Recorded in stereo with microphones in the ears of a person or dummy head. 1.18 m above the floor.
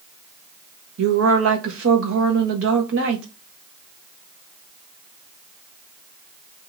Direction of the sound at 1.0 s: 75° right (ahead or behind).